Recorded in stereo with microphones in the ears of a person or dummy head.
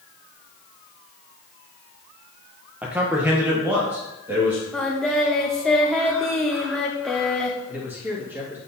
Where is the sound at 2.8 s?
10° right (ahead or behind), 1.0 m; by 4.6 s 15° right (ahead or behind), 2 m.